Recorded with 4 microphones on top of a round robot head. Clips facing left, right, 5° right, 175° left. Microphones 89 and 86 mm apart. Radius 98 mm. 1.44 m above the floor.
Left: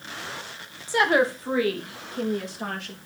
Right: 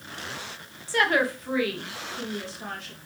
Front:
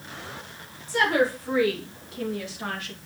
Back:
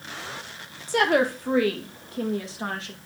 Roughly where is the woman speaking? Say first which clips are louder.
Left 3 dB, back 1 dB; behind.